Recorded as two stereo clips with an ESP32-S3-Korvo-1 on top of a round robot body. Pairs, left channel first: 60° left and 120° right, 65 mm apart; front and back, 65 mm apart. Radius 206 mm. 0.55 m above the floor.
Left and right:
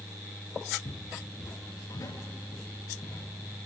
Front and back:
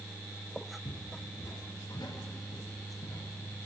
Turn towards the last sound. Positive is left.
turn(degrees=10)